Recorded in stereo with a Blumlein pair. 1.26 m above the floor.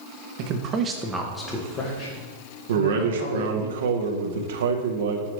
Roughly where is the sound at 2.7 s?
Ahead right.